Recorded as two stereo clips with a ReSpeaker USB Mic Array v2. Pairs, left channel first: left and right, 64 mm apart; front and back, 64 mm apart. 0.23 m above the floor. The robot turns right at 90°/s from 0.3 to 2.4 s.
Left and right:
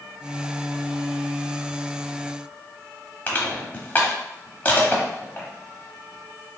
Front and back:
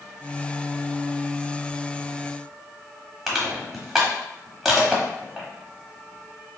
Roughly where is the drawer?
No drawer in this recording.